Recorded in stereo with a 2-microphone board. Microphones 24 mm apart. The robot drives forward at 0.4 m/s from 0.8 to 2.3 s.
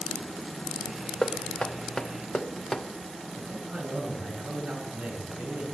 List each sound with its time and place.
1.2 s knocking: 40° left (ahead or behind), 0.8 m; by 2.9 s 30° left (ahead or behind), 1.1 m
3.4 s a man speaking: 65° right (ahead or behind), 9 m